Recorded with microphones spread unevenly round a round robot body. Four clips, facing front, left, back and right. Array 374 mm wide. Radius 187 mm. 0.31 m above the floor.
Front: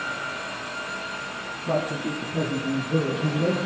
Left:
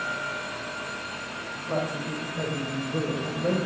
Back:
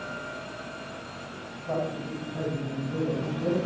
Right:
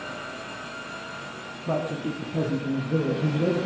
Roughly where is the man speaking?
Ahead right.